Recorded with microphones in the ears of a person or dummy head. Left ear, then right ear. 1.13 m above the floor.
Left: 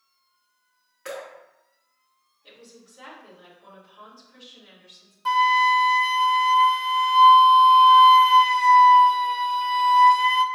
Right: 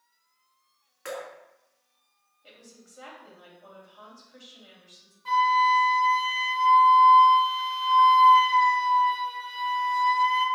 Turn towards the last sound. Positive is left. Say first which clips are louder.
# left 3 dB
turn(degrees=40)  # may be behind; listen again after turning